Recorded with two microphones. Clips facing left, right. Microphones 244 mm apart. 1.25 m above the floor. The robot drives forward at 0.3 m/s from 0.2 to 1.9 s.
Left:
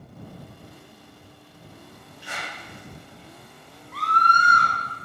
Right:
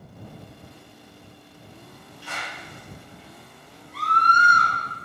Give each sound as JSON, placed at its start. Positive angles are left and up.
{"t": 2.2, "sound": "a clap", "side_deg": 15, "distance_m": 3.5}
{"t": 3.9, "sound": "a scream", "side_deg": 60, "distance_m": 1.3}